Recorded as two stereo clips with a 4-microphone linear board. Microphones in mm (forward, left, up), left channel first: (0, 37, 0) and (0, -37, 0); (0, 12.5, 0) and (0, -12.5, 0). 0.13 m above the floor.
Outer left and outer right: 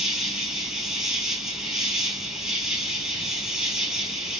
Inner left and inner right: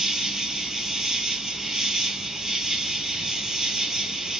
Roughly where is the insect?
Centre.